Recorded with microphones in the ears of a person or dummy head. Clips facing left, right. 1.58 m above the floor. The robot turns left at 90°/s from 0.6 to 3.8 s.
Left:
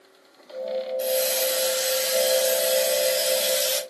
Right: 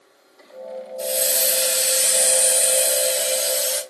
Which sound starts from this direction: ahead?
A hiss, at 1.0 s.